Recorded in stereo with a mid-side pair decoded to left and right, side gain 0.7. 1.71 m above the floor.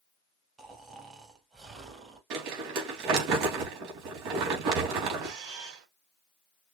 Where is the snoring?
25° right, 2.5 m.